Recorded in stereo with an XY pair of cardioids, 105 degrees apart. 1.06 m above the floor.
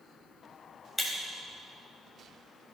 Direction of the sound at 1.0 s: 10° left.